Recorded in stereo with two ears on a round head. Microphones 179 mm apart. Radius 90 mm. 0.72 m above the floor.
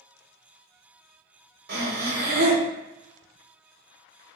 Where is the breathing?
50° right (ahead or behind), 0.7 m.